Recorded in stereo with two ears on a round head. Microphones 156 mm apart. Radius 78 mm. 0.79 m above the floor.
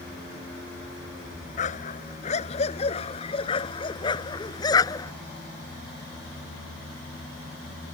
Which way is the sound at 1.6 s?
45° left (ahead or behind).